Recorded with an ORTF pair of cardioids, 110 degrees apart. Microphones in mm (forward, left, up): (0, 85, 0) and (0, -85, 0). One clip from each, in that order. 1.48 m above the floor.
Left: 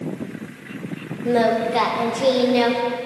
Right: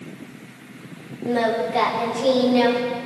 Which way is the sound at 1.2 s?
25° left.